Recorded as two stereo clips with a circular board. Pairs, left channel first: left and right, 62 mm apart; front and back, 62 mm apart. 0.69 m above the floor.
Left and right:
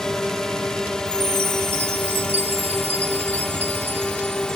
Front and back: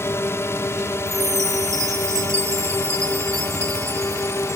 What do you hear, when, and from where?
0.0 s a drone: 15° left
1.1 s a chime: 145° right